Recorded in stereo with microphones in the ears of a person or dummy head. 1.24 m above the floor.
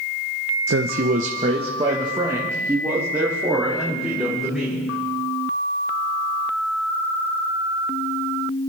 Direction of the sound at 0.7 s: 65° right (ahead or behind).